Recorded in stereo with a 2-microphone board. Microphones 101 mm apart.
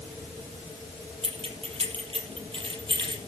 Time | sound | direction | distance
1.2 | keys jangling | 70° right (ahead or behind) | 3.5 m